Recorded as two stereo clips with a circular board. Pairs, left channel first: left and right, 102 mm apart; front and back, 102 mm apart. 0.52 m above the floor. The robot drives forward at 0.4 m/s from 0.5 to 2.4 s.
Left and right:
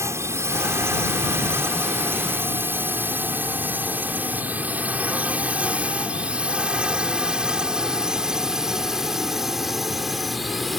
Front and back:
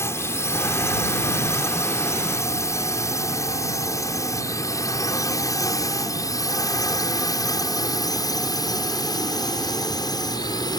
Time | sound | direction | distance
0.0 | a drone | 45° right | ?